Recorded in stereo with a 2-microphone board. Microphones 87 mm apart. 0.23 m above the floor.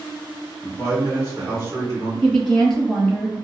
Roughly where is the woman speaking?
Centre.